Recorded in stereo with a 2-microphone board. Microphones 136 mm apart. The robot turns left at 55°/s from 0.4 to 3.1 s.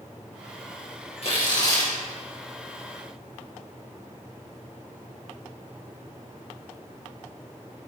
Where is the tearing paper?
50° left, 8 m; by 1.9 s 10° left, 8 m.